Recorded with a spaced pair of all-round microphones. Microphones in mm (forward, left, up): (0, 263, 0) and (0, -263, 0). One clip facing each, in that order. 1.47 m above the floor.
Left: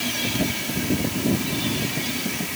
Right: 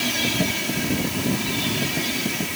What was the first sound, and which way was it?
Only background noise.